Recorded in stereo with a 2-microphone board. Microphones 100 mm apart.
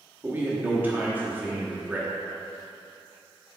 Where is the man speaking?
20° right (ahead or behind), 1.0 m.